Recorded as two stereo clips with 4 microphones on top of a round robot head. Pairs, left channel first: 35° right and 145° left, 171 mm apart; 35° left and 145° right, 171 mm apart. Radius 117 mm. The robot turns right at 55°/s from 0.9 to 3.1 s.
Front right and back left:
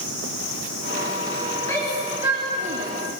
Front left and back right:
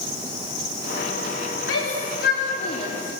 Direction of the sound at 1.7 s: 40° left.